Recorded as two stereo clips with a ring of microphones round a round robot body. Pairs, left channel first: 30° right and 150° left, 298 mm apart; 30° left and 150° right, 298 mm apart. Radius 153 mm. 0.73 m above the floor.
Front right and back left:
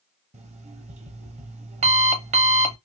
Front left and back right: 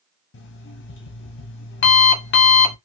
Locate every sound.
0.3 s an alarm clock: 80° left, 0.6 m